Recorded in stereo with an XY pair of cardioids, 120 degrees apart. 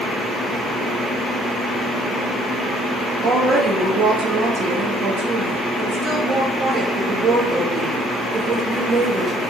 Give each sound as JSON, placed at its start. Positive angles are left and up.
{"t": 3.2, "sound": "a woman speaking", "azimuth_deg": -50, "distance_m": 1.1}